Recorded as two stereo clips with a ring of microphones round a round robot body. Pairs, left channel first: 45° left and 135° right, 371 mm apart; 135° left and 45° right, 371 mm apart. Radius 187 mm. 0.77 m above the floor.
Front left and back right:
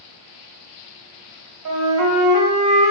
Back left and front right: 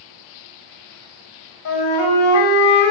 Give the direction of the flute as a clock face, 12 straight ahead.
6 o'clock.